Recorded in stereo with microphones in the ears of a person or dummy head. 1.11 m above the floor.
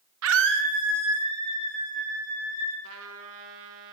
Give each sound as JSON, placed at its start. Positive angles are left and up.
{"t": 0.2, "sound": "a scream", "side_deg": -80, "distance_m": 0.5}
{"t": 2.8, "sound": "a trumpet", "side_deg": -70, "distance_m": 1.3}